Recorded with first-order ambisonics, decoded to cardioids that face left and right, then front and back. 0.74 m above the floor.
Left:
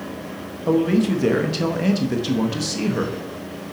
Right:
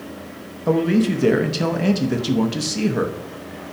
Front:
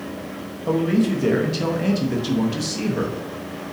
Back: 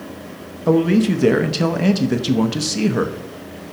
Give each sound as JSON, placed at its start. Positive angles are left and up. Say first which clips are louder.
{"t": 0.7, "sound": "a man speaking", "louder": "even, back 5 dB", "azimuth_deg": -165, "distance_m": 0.6}